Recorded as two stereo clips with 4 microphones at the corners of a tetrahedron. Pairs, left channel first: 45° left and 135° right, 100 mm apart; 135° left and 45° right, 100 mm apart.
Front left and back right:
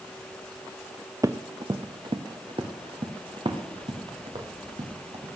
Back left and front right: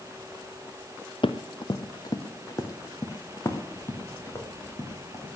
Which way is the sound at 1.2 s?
170° left.